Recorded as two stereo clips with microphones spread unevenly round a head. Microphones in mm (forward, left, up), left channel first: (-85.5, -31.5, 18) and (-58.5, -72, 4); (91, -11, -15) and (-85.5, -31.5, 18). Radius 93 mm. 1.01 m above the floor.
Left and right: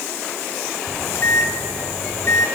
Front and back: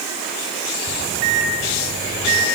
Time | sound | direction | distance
0.9 | a microwave | 150° left | 3.5 m